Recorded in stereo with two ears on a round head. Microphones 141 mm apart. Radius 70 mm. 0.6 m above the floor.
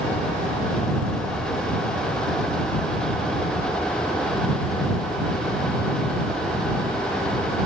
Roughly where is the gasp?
No gasp in this recording.